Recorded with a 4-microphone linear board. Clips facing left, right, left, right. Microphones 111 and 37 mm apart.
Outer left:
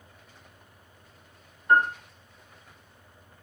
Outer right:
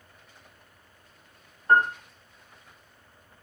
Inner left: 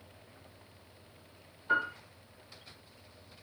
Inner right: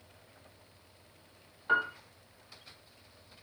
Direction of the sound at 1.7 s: 40° right (ahead or behind).